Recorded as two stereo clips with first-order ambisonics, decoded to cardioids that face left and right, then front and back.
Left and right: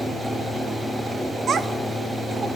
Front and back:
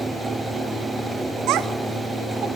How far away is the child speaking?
About 0.7 m.